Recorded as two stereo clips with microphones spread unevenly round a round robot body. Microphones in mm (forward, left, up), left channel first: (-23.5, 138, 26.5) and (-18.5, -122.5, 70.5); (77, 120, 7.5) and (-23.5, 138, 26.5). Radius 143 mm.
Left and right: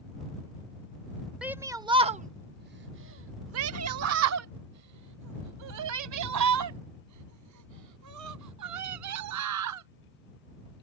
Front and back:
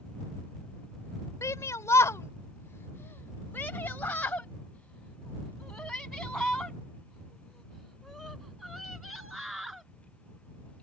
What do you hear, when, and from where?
1.4 s a shout: 5° left; by 9.9 s 100° right